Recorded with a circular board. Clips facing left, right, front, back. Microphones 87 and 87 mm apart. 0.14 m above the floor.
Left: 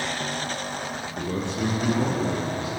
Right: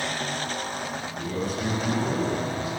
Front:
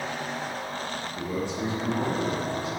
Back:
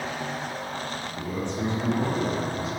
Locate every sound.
1.2 s a man speaking: 80° left, 4.5 m; by 2.7 s 90° left, 6 m